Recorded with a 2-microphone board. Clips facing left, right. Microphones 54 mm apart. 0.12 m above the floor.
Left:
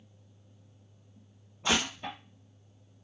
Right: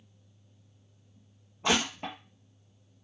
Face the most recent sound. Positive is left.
turn(degrees=-70)  # may be behind; listen again after turning